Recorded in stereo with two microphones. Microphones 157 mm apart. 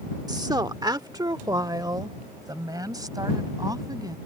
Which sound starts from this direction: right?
A woman speaking, at 0.3 s.